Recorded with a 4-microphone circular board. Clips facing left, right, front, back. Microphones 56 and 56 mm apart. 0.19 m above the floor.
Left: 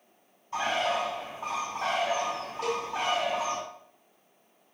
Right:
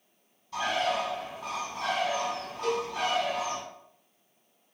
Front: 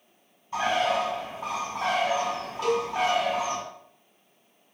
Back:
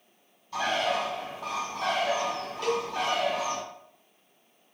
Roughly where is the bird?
Ahead left.